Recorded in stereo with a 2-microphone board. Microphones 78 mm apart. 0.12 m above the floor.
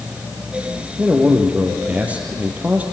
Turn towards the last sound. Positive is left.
turn(degrees=-15)  # may be behind; listen again after turning